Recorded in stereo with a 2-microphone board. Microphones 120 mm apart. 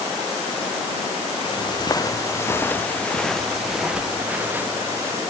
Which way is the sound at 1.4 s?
40° left (ahead or behind).